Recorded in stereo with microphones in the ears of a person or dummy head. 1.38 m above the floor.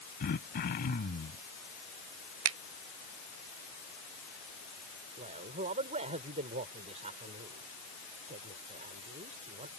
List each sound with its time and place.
0.2 s throat clearing: 50° left (ahead or behind)
2.5 s a finger snap: 70° right (ahead or behind)
5.2 s a man speaking: 40° right (ahead or behind)